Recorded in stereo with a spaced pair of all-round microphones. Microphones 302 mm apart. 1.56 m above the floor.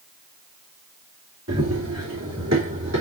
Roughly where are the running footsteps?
Right.